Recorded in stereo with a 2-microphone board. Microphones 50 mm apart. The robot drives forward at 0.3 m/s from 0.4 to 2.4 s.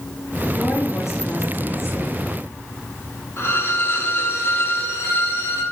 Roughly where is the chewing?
No chewing in this recording.